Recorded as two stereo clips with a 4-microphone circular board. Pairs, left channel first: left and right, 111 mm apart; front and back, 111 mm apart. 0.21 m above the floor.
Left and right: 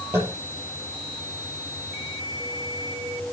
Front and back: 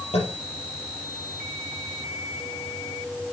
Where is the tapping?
20° right, 7.5 m.